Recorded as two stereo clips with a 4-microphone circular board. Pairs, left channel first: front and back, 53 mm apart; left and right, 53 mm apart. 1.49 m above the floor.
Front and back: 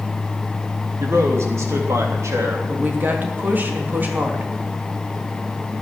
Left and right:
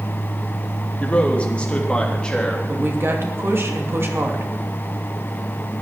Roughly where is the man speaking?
Behind left.